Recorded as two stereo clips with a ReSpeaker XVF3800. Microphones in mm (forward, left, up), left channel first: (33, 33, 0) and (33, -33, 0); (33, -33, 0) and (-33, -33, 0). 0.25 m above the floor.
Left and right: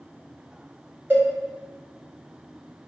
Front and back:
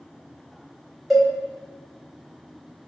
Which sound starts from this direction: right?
A cowbell, at 1.1 s.